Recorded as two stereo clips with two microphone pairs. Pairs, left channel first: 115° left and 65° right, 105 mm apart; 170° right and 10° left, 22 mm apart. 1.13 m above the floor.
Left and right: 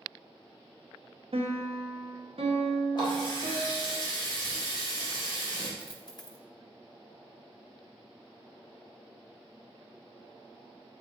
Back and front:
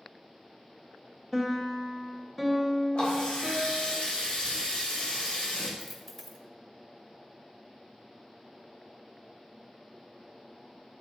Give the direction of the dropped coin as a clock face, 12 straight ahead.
9 o'clock.